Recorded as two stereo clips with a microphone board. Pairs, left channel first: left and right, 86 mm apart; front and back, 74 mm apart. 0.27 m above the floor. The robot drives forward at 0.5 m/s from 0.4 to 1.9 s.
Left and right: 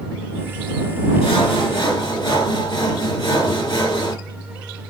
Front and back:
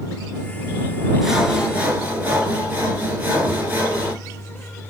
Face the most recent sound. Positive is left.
turn(degrees=115)